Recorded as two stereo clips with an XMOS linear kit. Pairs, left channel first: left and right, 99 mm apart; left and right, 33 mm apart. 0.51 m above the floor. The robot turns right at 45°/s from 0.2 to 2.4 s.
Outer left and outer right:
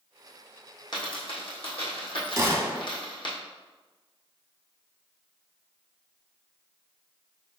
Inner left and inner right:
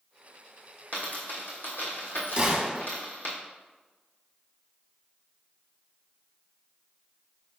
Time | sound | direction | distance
0.9 | a dropped coin | 50° left (ahead or behind) | 1.5 m
2.4 | a gunshot | 30° right (ahead or behind) | 0.7 m